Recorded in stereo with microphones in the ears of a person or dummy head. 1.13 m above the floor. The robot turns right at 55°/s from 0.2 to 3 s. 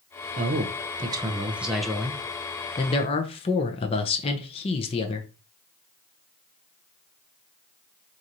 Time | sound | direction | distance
0.4 | a man speaking | 80° right | 0.7 m